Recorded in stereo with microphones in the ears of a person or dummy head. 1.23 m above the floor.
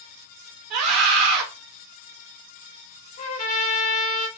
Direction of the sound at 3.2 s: 40° left (ahead or behind).